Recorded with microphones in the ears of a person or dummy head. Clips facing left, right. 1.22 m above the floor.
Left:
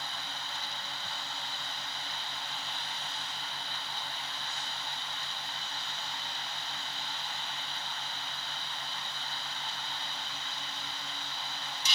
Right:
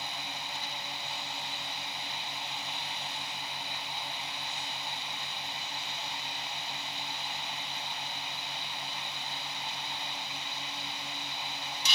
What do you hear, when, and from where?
0.0 s a fan: 10° right (ahead or behind)